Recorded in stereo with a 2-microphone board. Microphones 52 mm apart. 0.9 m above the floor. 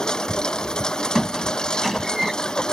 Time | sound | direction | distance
0.0 | a lawn mower | 15° left (ahead or behind) | ?
1.1 | a squeak | 5° right (ahead or behind) | ?